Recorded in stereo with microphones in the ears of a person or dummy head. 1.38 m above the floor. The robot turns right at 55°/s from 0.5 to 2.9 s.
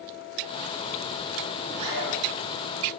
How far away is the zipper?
About 6 m.